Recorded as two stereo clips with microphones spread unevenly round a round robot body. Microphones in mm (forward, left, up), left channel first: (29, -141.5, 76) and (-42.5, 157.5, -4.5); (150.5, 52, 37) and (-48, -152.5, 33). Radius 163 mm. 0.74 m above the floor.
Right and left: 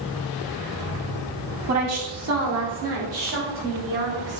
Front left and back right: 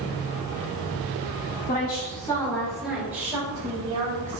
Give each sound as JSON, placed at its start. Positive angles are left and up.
{"t": 1.7, "sound": "a woman speaking", "azimuth_deg": 105, "distance_m": 2.0}